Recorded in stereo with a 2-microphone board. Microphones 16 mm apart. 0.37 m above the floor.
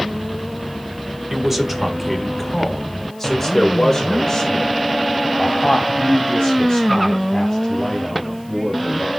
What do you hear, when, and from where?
1.3 s a man speaking: 25° right (ahead or behind), 1.4 m; by 9.1 s 35° left (ahead or behind), 4 m